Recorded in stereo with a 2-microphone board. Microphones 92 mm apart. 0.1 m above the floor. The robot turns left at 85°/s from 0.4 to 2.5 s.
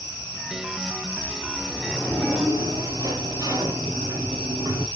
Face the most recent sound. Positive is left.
turn(degrees=-50)